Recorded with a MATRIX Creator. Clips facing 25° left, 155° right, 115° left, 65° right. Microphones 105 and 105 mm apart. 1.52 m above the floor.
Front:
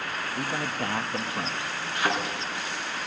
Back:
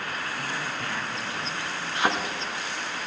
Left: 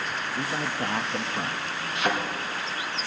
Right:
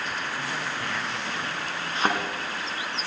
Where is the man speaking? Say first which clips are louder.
Front 2 dB, left 2 dB; 65° left, 0.8 m.